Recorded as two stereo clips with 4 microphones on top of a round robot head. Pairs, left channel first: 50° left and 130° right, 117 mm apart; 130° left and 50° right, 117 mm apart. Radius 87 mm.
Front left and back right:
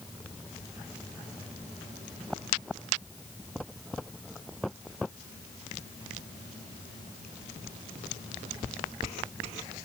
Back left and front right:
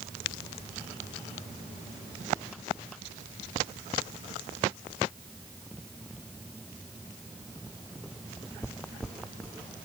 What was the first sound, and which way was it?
Only background noise.